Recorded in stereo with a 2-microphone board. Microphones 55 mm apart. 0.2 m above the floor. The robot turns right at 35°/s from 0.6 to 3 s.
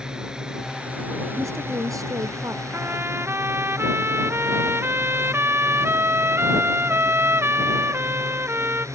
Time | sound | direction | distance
0.0 | a drone | 165° right | ?
1.4 | a woman speaking | 115° right | ?
2.7 | a trumpet | 50° right (ahead or behind) | ?